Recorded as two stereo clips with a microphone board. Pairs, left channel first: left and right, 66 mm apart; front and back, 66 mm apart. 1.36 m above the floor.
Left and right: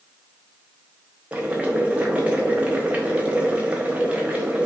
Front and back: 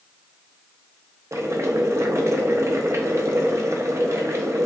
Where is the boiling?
150° right, 0.6 m.